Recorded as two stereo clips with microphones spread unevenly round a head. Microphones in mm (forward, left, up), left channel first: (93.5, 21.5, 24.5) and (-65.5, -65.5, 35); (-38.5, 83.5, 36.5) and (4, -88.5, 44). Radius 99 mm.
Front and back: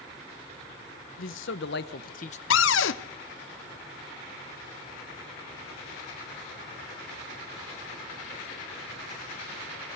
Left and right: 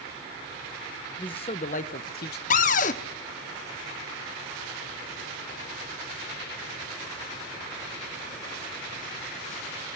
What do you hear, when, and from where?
1.2 s a man speaking: 40° left, 1.2 m; by 2.4 s 80° left, 0.9 m
2.5 s a cupboard door: 55° left, 0.8 m